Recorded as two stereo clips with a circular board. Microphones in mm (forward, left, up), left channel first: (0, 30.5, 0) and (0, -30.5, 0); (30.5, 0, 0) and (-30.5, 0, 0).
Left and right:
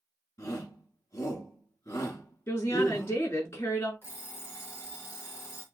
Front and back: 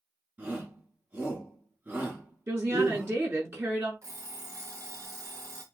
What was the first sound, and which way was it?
A shout, 120° left.